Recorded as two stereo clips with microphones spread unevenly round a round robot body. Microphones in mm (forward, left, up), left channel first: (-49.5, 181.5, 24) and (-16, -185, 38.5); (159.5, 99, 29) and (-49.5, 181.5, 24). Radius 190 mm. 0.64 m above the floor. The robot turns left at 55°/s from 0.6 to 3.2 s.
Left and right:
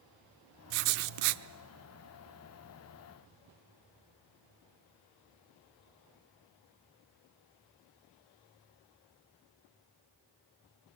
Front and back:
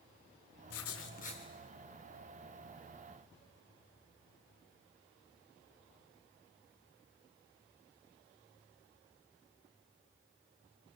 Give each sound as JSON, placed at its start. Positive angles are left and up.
{"t": 0.7, "sound": "writing", "azimuth_deg": -60, "distance_m": 0.8}